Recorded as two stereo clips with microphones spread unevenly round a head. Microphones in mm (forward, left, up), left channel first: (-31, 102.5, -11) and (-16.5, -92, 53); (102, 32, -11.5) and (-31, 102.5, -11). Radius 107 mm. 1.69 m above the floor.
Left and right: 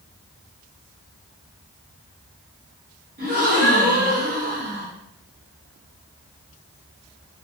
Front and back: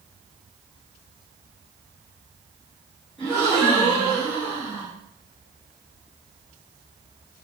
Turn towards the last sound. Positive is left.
turn(degrees=-115)